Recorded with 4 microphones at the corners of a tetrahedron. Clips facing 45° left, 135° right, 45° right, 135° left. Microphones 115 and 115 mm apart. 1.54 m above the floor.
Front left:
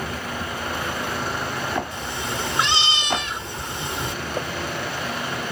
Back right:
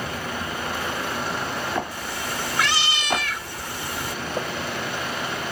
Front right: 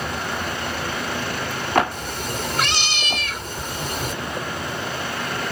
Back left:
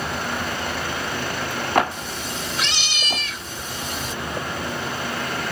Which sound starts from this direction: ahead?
A cat meowing, at 1.9 s.